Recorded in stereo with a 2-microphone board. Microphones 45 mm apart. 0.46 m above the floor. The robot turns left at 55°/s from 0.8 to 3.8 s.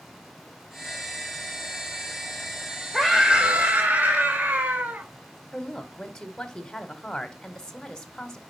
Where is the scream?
Straight ahead, 1.4 m; by 5.1 s 50° right, 1.4 m.